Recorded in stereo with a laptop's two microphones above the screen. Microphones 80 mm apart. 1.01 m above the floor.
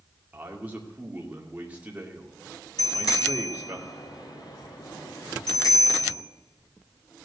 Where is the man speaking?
20° right (ahead or behind), 2.5 m.